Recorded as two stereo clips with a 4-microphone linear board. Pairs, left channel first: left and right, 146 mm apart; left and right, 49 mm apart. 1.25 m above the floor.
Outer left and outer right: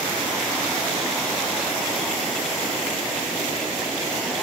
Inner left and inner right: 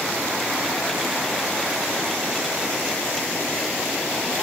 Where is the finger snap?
No finger snap in this recording.